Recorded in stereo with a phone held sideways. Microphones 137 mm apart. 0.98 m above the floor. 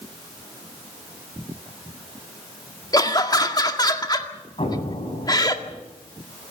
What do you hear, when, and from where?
2.9 s laughter: 30° left (ahead or behind), 1.9 m
4.6 s an explosion: 45° left (ahead or behind), 4 m